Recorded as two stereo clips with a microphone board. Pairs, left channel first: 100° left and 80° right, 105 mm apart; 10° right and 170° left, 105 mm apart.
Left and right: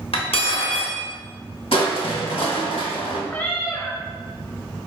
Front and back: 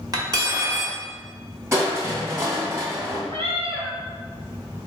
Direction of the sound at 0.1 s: 120° left.